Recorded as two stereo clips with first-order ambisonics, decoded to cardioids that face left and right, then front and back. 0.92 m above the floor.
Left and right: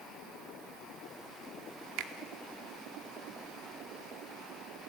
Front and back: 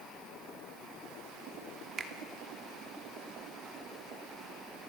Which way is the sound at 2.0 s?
110° right.